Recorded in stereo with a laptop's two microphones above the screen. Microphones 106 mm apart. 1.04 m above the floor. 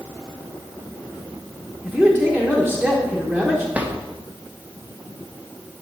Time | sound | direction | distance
1.8 | a man speaking | 5° left (ahead or behind) | 1.0 m
3.7 | a drawer | 15° right (ahead or behind) | 1.0 m